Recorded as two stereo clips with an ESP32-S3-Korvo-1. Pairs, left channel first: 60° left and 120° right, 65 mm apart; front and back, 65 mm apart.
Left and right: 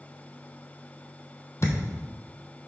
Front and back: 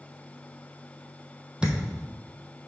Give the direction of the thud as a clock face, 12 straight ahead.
9 o'clock.